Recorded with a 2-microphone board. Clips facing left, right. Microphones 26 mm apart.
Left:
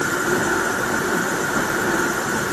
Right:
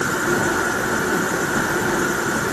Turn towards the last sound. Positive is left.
No sound to turn to.